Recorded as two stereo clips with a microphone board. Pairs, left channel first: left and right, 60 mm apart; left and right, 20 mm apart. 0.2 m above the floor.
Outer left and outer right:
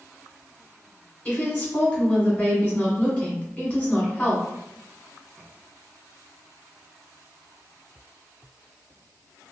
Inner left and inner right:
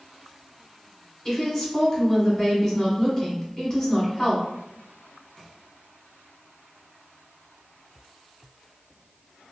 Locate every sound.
1.2 s a woman speaking: 30° left (ahead or behind), 1.3 m